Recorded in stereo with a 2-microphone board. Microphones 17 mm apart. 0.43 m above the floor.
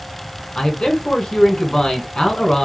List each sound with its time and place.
0.6 s a man speaking: 55° left (ahead or behind), 1.8 m